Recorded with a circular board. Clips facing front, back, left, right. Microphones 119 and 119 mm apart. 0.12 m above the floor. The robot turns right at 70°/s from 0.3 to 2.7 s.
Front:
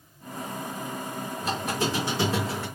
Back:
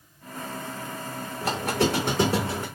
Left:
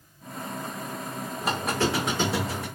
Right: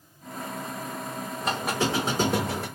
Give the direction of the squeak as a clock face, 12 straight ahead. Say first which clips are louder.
Back 4 dB, left 1 dB; 6 o'clock.